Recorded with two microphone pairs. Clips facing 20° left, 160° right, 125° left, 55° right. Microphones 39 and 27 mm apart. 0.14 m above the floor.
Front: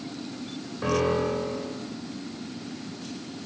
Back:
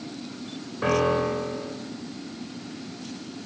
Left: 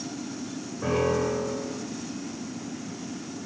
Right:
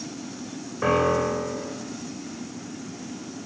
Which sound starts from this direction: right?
A piano, at 0.8 s.